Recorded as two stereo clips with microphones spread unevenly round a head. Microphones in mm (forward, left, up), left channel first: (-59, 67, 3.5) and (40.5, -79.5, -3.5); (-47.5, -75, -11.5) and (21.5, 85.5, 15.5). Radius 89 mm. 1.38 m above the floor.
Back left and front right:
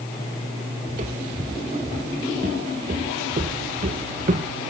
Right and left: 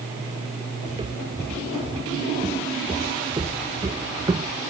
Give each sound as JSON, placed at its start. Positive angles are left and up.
{"t": 0.9, "sound": "footsteps", "azimuth_deg": 0}